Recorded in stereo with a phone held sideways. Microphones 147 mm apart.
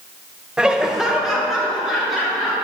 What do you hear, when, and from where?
0.6 s laughter: 5° right (ahead or behind), 0.5 m; by 2.5 s centre (ahead or behind), 3 m